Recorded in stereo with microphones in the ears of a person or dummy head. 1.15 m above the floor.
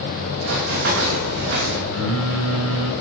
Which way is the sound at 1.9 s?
75° right (ahead or behind).